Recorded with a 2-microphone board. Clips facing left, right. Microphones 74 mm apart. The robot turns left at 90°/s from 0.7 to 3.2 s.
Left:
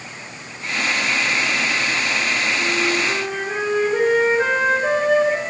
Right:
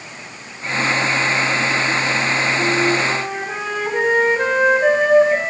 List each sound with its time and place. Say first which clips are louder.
2.6 s a flute: right 3 dB; 45° right, 7 m; by 5.5 s 105° right, 7 m